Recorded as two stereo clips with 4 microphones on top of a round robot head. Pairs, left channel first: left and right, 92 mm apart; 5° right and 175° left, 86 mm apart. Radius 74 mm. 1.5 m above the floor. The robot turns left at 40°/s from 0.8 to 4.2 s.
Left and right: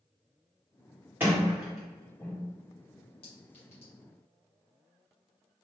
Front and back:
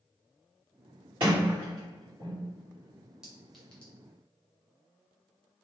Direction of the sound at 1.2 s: 155° right.